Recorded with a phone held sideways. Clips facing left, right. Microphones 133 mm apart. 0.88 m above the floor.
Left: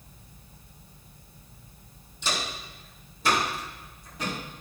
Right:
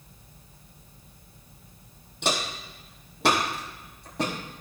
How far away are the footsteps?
About 2.5 m.